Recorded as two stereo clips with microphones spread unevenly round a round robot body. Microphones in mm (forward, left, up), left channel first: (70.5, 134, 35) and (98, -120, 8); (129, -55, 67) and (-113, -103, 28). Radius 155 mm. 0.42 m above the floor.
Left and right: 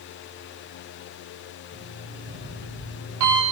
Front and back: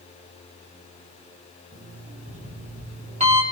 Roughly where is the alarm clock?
Right.